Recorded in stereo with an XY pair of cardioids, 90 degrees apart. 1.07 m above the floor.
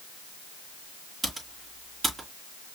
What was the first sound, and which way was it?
Typing on a keyboard, 35° right.